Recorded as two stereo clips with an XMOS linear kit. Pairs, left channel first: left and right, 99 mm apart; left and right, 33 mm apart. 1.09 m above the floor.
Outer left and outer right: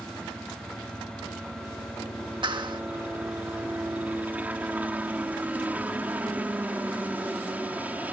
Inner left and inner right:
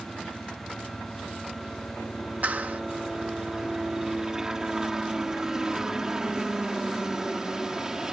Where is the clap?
50° right (ahead or behind).